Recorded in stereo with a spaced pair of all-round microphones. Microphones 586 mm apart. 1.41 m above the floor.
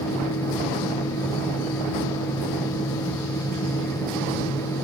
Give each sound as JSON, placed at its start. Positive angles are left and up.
{"t": 0.0, "sound": "a fan", "side_deg": 5, "distance_m": 0.7}